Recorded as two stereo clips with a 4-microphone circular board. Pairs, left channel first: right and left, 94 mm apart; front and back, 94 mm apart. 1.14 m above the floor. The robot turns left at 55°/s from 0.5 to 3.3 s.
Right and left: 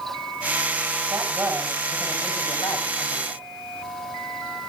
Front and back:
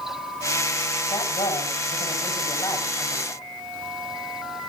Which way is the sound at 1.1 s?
35° left.